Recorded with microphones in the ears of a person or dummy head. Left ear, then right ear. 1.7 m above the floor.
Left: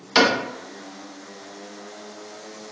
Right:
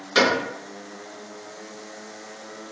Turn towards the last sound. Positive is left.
turn(degrees=35)  # may be behind; listen again after turning